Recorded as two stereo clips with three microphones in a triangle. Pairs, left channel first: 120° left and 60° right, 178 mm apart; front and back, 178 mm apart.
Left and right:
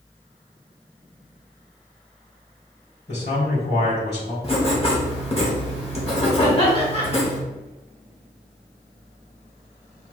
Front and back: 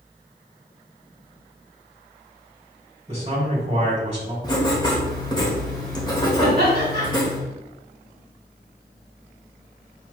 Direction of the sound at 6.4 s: 175° left.